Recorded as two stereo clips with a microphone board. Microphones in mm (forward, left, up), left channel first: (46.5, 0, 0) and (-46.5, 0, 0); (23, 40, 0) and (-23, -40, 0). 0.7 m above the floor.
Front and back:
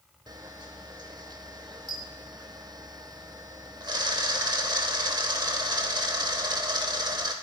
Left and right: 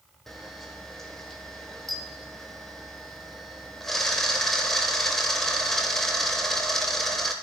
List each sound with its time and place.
0.3 s a camera shutter: 145° left, 0.7 m